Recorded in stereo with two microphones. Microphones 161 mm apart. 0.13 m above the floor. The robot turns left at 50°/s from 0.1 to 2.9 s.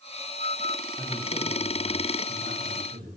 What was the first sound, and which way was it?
A man speaking, 25° right.